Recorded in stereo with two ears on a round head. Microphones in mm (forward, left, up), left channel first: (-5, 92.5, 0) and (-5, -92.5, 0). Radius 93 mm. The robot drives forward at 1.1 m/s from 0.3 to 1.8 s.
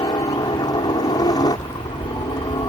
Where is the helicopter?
20° left (ahead or behind).